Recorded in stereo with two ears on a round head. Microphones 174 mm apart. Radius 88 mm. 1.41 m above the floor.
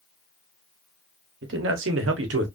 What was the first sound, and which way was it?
A man speaking, 65° right (ahead or behind).